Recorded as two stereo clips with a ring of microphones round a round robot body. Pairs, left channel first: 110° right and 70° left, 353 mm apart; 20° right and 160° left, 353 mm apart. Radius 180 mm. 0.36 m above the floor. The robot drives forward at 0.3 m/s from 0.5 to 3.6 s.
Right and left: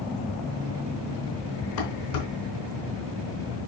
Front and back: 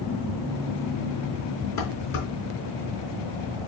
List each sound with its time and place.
1.8 s dishes clattering: 75° right, 3 m; by 2.2 s 80° right, 3 m